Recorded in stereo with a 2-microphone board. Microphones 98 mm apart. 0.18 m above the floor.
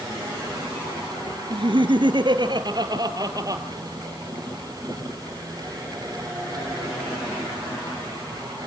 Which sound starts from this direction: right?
Laughter, at 1.5 s.